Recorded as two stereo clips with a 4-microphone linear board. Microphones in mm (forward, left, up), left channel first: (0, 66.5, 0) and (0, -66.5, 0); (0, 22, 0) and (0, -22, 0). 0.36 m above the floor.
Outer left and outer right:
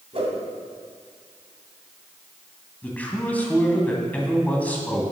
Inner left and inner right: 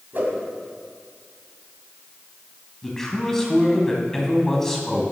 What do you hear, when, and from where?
0.1 s a whoosh: 50° right (ahead or behind), 1.7 m
2.8 s a man speaking: 10° left (ahead or behind), 2 m